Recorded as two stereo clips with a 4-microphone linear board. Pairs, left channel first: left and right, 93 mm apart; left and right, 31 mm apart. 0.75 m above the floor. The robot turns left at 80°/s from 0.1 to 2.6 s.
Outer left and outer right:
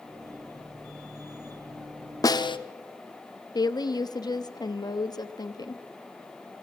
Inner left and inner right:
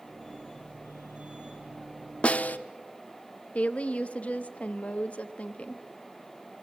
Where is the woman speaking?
45° left (ahead or behind), 1.0 m.